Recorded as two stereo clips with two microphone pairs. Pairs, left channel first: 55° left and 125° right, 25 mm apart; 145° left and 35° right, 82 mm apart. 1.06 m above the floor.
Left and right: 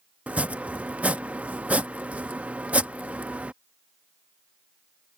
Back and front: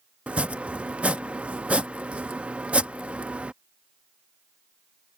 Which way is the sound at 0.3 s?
110° right.